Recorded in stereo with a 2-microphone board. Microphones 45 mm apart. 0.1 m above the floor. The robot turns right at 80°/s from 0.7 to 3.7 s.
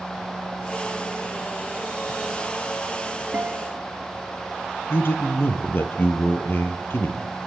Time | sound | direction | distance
3.3 | a guitar | 40° right (ahead or behind) | 1.9 m
4.9 | a man speaking | 55° left (ahead or behind) | 2.5 m